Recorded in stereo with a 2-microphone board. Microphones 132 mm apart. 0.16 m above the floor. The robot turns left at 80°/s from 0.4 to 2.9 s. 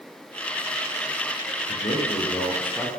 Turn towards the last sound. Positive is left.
turn(degrees=-10)